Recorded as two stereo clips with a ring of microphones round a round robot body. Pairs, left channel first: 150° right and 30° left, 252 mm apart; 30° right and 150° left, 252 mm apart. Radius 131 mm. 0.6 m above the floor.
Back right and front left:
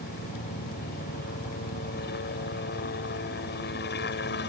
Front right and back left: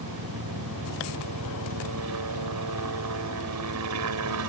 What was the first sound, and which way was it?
A helicopter, 160° left.